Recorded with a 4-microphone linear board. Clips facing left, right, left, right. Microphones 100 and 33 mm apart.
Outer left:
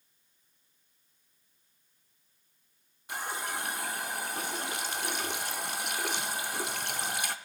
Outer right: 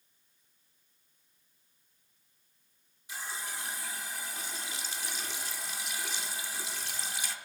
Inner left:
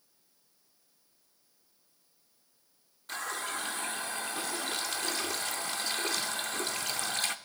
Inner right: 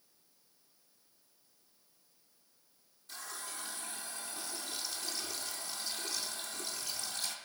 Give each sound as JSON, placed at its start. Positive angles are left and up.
{"t": 3.1, "sound": "a running tap", "side_deg": 55, "distance_m": 0.5}